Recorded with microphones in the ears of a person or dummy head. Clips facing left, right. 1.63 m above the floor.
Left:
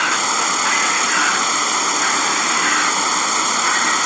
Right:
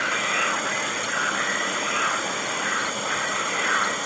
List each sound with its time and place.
0.0 s an insect: 75° left (ahead or behind)